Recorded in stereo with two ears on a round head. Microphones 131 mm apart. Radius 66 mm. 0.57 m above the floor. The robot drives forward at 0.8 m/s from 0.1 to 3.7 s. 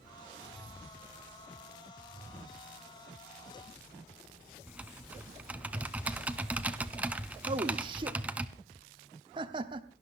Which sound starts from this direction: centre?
Typing on a keyboard, at 4.7 s.